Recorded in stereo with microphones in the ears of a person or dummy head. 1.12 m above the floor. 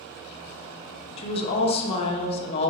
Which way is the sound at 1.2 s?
30° left (ahead or behind).